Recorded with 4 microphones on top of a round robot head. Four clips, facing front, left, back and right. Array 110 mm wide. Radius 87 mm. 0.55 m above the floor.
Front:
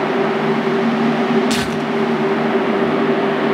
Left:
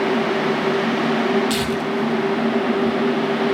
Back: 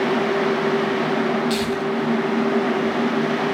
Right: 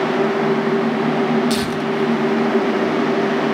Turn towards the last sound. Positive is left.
turn(degrees=-10)